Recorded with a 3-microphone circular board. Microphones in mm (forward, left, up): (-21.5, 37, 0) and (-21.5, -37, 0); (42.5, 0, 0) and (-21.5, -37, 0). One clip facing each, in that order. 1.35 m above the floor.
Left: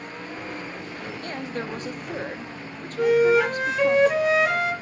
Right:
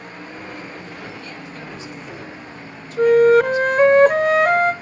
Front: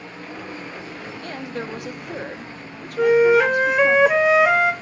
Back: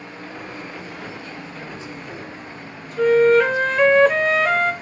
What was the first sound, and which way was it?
A woman speaking, 50° left.